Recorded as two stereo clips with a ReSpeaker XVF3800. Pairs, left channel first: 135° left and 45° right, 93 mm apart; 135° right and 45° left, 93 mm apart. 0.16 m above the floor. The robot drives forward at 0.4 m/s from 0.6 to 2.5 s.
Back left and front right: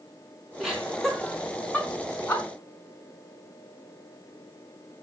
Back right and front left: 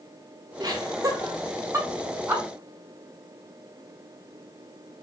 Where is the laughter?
40° left, 1.3 m; by 2.4 s 100° left, 1.1 m.